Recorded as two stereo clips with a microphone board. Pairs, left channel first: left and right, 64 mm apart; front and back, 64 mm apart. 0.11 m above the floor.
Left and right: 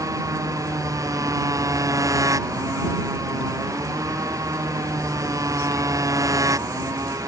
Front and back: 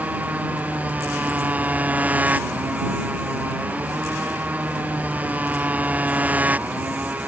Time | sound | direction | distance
0.0 | a motorcycle | 115° right | ?